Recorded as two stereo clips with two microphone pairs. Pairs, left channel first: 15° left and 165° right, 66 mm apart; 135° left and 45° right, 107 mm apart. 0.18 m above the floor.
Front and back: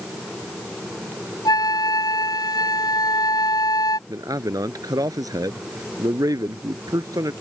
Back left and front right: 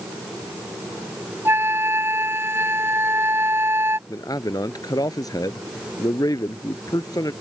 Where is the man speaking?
175° right.